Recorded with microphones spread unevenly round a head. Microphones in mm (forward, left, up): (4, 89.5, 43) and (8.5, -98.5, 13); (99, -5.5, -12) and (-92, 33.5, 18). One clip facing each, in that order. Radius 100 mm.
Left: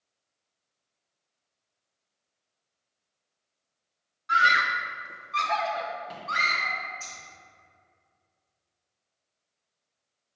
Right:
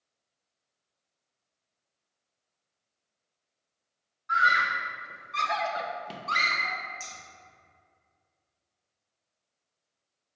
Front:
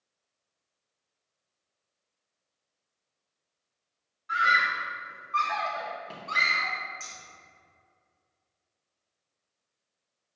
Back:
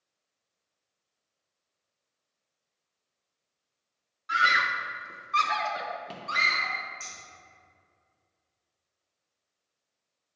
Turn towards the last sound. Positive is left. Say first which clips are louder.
# even, even
turn(degrees=-100)